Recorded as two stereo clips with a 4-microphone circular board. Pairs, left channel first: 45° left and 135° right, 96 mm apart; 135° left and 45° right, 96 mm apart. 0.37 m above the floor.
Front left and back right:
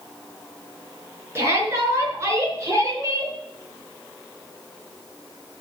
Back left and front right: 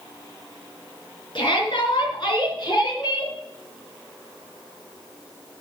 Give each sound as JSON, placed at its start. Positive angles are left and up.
{"t": 1.4, "sound": "a shout", "azimuth_deg": 165, "distance_m": 5.0}